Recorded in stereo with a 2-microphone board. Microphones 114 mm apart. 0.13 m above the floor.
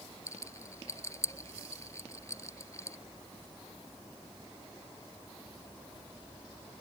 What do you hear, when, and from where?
0.3 s a rattle: 25° left (ahead or behind)